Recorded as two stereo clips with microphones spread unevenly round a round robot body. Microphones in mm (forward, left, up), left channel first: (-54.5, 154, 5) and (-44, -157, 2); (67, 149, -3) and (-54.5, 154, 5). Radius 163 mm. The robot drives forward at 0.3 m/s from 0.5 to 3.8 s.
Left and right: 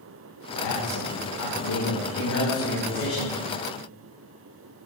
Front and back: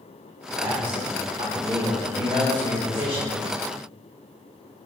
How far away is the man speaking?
About 2.5 m.